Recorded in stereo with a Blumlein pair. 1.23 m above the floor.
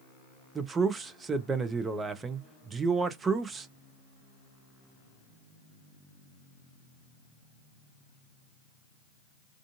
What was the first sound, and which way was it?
A man speaking, 15° right.